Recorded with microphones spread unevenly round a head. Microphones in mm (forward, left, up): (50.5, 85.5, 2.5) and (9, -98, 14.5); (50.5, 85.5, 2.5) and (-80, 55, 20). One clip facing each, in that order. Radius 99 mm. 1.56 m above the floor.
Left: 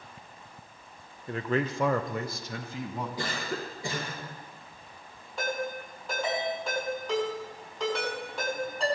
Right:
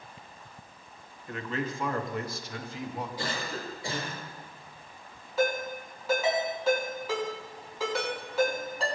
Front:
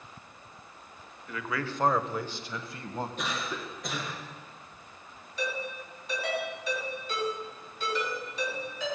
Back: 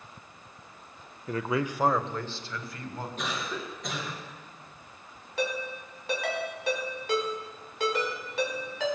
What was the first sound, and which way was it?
A man speaking, 140° left.